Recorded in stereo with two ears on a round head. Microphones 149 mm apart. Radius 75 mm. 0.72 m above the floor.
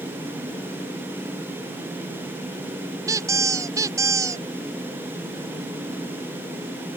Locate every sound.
3.1 s a squeak: 20° right (ahead or behind)